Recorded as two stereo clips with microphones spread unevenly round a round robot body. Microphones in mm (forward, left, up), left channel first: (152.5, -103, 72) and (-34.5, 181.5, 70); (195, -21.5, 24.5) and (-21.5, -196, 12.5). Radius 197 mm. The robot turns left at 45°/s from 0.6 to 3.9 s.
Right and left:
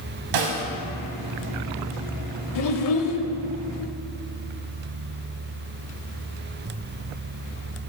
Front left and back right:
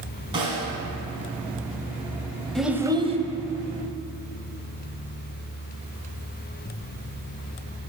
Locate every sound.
0.3 s a snare drum: 140° left, 1.4 m
2.5 s a child speaking: 50° right, 1.2 m; by 3.2 s 80° right, 1.2 m